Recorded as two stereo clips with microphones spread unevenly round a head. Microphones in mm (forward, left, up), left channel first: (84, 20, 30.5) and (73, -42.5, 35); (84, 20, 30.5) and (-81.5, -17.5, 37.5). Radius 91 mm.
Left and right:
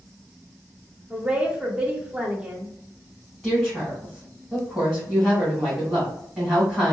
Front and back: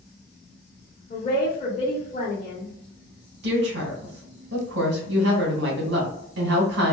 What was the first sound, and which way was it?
A woman speaking, 35° right.